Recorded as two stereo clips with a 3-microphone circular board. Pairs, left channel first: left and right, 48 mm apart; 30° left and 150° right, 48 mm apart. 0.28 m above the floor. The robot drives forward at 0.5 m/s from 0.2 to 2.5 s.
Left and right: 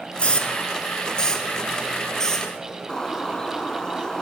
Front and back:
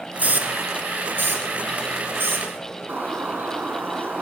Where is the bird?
165° left, 1.0 m.